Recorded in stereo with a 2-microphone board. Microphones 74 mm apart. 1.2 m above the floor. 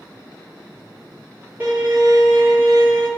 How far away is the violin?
About 1.7 m.